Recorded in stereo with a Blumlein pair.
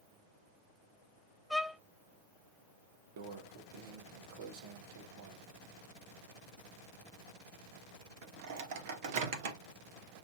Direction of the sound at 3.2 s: 50° right.